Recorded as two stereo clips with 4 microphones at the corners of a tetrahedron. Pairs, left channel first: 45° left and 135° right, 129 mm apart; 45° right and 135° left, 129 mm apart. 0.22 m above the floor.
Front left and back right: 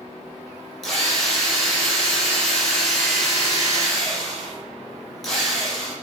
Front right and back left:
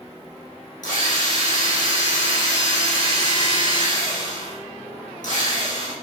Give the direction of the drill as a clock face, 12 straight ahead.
1 o'clock.